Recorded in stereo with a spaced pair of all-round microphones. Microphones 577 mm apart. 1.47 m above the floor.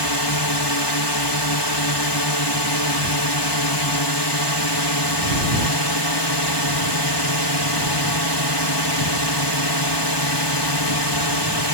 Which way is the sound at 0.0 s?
45° left (ahead or behind).